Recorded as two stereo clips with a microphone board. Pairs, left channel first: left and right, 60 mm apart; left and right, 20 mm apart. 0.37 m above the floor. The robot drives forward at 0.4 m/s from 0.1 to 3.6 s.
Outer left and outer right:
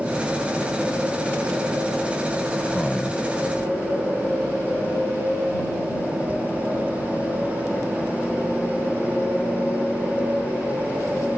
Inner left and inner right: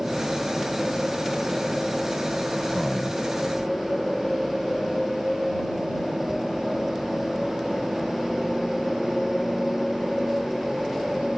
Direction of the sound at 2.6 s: 15° left (ahead or behind).